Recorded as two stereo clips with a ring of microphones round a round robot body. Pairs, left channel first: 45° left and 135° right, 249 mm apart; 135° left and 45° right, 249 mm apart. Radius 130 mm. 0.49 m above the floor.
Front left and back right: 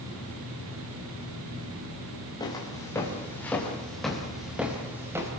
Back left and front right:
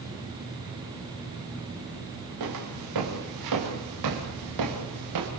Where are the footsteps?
30° right, 7 m; by 5.3 s 55° right, 6 m.